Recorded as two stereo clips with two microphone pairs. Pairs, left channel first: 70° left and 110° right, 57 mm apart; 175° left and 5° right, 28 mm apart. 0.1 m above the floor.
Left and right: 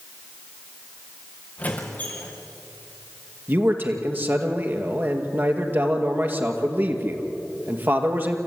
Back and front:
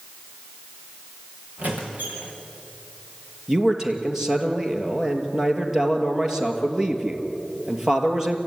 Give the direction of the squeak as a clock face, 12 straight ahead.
12 o'clock.